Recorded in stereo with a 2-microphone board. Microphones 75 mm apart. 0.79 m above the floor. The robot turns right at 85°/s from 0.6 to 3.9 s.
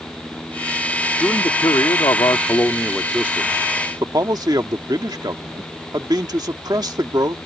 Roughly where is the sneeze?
No sneeze in this recording.